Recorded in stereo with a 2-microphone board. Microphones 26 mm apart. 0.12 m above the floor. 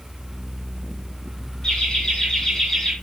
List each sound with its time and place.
1.6 s laughter: 30° left (ahead or behind), 3.5 m; by 2.9 s 15° left (ahead or behind), 4 m